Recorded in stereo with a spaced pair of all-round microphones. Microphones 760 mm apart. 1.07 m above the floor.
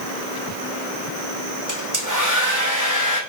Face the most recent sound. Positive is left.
turn(degrees=-25)  # may be behind; listen again after turning